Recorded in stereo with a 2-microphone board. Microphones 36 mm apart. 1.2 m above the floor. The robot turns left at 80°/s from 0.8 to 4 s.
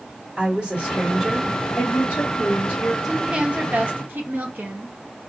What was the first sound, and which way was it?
A woman speaking, 160° right.